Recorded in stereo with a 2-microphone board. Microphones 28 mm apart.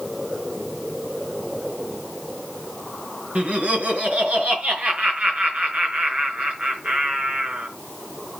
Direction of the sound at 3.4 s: 65° right (ahead or behind).